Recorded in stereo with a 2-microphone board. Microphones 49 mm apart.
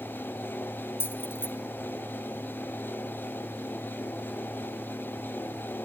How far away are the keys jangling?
About 1.2 m.